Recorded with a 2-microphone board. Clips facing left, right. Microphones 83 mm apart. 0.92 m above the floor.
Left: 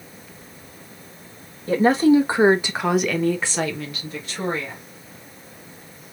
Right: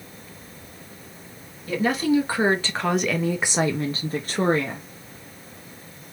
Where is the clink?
I don't hear a clink.